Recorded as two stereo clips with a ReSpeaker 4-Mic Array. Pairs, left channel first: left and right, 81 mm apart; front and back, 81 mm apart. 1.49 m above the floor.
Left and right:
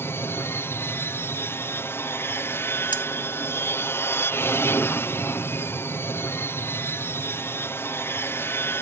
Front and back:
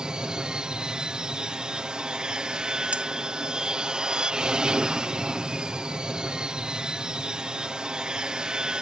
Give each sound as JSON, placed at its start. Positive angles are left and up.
{"t": 0.0, "sound": "an aircraft", "azimuth_deg": 110}
{"t": 2.9, "sound": "cutlery clinking", "azimuth_deg": 105}